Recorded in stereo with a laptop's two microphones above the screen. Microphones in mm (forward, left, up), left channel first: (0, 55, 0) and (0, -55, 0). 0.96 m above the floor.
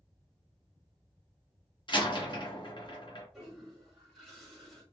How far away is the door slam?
About 1.5 m.